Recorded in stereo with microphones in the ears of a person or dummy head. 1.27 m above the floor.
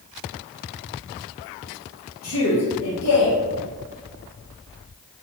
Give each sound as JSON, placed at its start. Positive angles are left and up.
{"t": 2.2, "sound": "a man speaking", "side_deg": 75, "distance_m": 0.8}